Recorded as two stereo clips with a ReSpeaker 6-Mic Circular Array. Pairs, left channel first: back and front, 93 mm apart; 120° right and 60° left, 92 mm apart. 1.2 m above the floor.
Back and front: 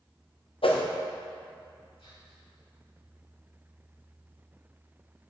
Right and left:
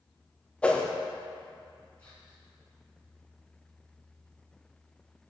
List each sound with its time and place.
0.6 s a whoosh: 160° left, 0.6 m
2.0 s whispering: 175° left, 1.5 m